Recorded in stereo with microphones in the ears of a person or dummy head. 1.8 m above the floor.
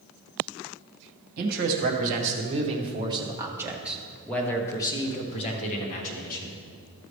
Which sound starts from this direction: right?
A man speaking, at 1.4 s.